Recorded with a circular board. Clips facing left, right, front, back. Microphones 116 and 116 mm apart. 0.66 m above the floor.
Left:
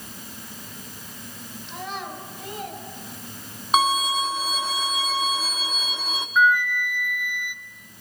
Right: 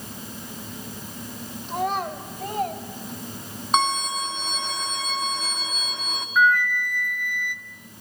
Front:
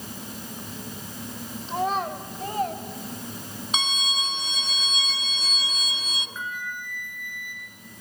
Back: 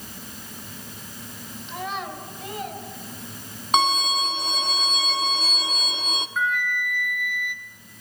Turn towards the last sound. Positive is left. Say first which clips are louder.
# even, back 10 dB
turn(degrees=170)